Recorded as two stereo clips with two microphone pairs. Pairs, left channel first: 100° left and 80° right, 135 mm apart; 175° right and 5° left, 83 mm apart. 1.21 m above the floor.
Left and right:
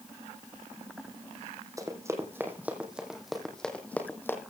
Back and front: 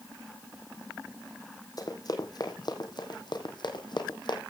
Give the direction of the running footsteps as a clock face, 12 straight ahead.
5 o'clock.